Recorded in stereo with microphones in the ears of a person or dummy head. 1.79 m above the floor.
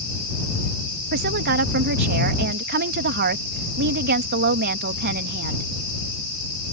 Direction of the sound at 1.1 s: 50° right (ahead or behind).